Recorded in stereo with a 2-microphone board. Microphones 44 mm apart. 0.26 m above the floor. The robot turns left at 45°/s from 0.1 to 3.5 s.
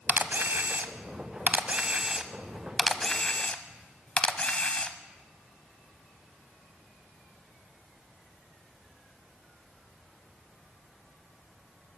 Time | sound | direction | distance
0.1 | a camera shutter | 45° right (ahead or behind) | 0.7 m